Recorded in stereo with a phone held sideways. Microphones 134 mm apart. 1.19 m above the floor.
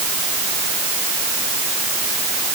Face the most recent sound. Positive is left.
No sound to turn to.